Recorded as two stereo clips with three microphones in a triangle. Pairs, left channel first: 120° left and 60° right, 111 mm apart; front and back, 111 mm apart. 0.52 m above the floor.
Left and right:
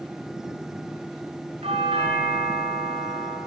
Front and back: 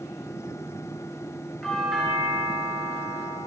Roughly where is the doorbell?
Right.